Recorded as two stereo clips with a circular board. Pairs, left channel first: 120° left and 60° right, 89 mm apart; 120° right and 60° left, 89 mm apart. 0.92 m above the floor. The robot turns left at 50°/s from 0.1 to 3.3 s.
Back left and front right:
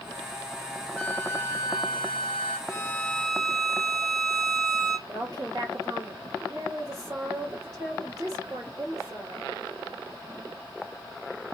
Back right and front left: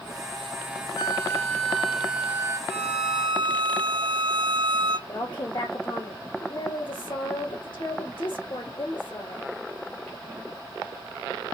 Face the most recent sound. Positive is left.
turn(degrees=-105)